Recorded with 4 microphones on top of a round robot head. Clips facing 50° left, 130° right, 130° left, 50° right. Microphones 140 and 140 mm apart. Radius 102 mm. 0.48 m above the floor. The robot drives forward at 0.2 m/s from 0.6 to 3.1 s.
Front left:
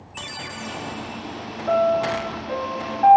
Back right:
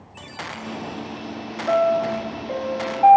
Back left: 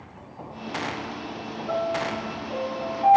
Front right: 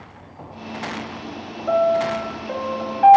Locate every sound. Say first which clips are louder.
1.7 s a piano: even, front right 9 dB; 50° right, 0.6 m; by 3.2 s 75° right, 0.5 m